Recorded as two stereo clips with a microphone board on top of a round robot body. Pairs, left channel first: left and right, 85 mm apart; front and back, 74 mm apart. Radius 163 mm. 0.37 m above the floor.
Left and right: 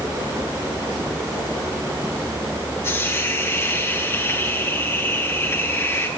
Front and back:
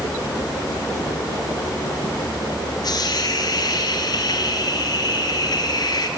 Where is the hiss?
30° left, 5 m.